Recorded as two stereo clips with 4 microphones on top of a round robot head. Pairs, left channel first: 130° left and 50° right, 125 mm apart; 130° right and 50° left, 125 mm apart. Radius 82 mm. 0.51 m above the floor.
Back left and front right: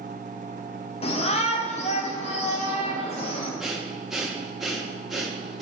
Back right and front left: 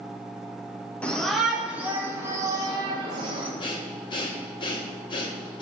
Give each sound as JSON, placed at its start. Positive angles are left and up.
{"t": 1.0, "sound": "a shout", "azimuth_deg": 150, "distance_m": 1.1}
{"t": 3.6, "sound": "breathing", "azimuth_deg": -135, "distance_m": 1.1}